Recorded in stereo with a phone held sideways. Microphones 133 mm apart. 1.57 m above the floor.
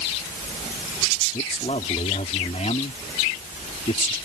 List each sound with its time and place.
1.3 s a man speaking: 60° left (ahead or behind)